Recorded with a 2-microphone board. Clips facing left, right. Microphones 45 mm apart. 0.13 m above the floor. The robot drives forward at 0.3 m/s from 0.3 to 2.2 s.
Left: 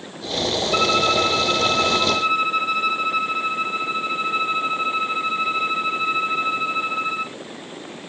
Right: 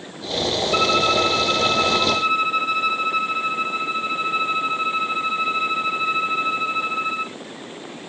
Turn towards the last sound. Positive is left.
turn(degrees=0)  # may be behind; listen again after turning